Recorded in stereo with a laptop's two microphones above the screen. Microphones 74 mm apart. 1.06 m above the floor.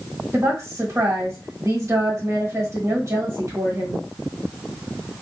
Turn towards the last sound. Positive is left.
turn(degrees=-40)  # may be behind; listen again after turning